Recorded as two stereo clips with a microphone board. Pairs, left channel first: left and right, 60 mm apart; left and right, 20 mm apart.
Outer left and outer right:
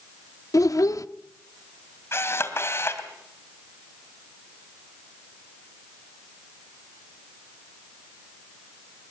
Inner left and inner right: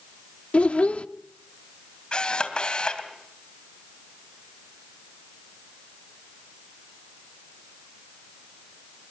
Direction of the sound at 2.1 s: 45° left (ahead or behind).